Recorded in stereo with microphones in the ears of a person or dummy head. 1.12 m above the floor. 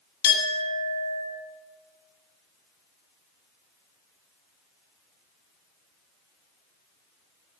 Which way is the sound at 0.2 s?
65° left (ahead or behind).